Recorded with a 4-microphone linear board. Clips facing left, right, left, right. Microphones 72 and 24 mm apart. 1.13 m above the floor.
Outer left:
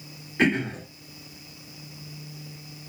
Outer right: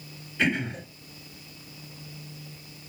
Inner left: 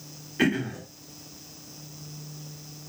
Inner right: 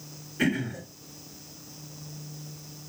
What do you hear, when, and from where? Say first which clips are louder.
0.4 s throat clearing: outer left 3 dB, inner left 2 dB; 45° left (ahead or behind), 1.9 m